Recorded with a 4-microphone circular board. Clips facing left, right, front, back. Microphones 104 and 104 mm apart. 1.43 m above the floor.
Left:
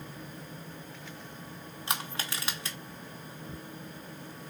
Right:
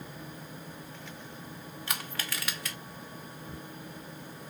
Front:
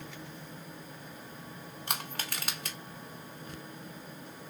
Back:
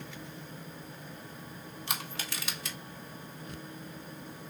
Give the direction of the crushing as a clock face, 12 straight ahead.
11 o'clock.